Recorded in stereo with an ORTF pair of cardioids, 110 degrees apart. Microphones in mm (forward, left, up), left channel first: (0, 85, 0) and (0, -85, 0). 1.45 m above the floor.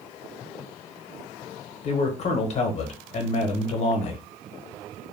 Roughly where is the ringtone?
I don't hear a ringtone.